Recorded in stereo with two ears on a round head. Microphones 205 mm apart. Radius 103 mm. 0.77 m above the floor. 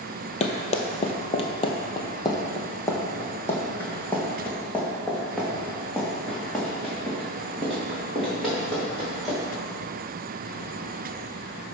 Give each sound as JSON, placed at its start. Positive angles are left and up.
{"t": 0.4, "sound": "running footsteps", "side_deg": 30, "distance_m": 0.9}